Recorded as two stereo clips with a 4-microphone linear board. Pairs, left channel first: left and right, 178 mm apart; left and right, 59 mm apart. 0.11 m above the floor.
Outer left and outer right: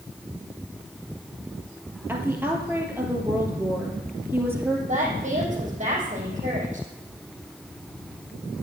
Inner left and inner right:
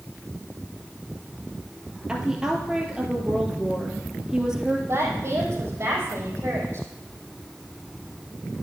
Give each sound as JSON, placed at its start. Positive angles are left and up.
{"t": 2.1, "sound": "a woman speaking", "side_deg": -10, "distance_m": 2.0}
{"t": 4.9, "sound": "a woman speaking", "side_deg": -40, "distance_m": 4.5}